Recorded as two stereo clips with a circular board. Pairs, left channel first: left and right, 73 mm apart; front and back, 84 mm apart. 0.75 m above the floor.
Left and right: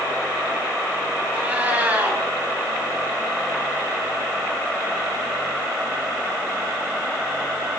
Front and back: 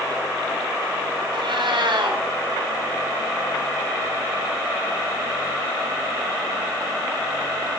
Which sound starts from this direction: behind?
A cat meowing, at 1.3 s.